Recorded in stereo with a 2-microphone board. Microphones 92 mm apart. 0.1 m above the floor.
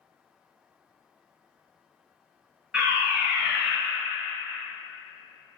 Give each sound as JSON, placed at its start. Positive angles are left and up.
{"t": 2.7, "sound": "a fire alarm", "side_deg": -10, "distance_m": 2.5}